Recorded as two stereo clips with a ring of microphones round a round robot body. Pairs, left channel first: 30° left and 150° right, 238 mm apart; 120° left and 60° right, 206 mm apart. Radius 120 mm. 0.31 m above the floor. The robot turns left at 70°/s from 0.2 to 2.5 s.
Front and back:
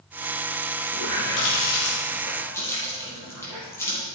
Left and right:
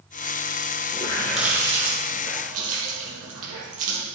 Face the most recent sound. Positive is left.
turn(degrees=-50)